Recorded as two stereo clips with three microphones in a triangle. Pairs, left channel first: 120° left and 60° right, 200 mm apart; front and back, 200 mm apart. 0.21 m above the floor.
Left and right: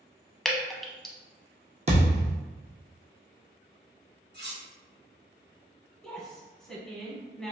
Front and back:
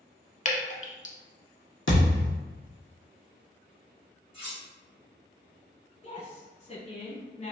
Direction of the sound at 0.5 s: 35° left.